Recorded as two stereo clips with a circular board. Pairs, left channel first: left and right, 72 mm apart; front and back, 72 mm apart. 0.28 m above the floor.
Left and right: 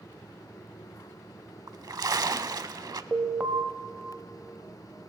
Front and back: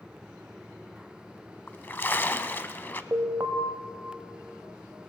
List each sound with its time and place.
1.7 s a splash: 60° right, 0.5 m
3.1 s an alarm: 150° right, 0.8 m